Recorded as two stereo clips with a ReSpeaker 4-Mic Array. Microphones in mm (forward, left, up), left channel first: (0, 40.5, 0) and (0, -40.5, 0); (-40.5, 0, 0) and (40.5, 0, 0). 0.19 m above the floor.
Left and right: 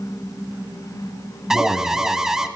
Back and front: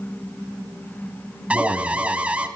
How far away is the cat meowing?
I don't hear a cat meowing.